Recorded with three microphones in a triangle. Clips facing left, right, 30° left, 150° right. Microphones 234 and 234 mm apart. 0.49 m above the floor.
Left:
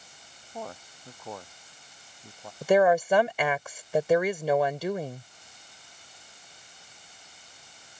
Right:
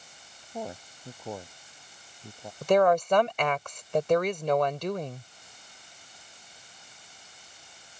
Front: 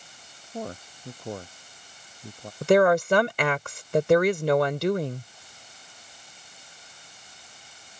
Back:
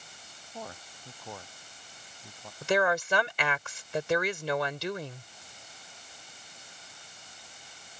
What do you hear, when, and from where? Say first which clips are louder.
0.5 s a man speaking: right 3 dB, front 9 dB; 15° right
2.6 s a woman speaking: left 1 dB, front 9 dB; 10° left